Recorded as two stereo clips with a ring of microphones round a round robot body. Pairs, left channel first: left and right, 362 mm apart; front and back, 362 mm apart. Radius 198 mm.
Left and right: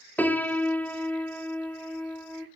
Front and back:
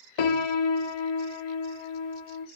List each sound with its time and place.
0.2 s a piano: 5° left, 1.0 m